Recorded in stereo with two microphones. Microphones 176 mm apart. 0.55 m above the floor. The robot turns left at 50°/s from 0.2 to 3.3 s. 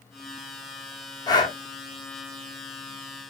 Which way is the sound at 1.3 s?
20° left (ahead or behind).